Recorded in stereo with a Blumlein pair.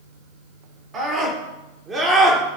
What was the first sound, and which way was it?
A scream, 20° right.